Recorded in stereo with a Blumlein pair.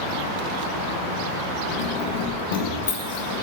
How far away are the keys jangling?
About 1.9 m.